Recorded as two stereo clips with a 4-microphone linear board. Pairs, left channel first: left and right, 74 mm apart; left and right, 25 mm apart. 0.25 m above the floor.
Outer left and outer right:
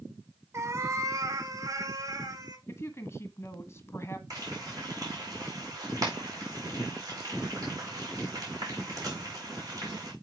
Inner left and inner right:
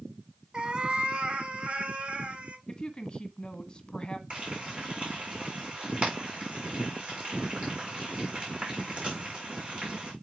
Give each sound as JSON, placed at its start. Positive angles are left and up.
{"t": 0.5, "sound": "a cat meowing", "side_deg": -35, "distance_m": 0.9}
{"t": 2.7, "sound": "a woman speaking", "side_deg": 35, "distance_m": 1.6}
{"t": 4.3, "sound": "frying", "side_deg": -50, "distance_m": 5.5}